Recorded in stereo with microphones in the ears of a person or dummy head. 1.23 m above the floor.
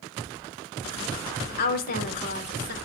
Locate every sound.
1.6 s a woman speaking: 50° left (ahead or behind), 0.7 m